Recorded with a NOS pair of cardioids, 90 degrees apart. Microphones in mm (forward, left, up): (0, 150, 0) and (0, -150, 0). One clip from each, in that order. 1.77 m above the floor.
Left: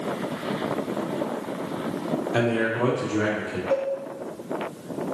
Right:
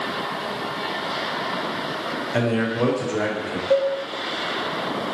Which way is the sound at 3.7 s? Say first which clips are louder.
Right 6 dB; 45° right.